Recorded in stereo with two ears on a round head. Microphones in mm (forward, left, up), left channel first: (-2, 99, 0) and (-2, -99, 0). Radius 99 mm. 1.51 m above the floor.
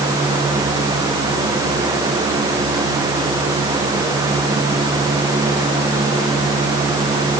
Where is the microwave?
No microwave in this recording.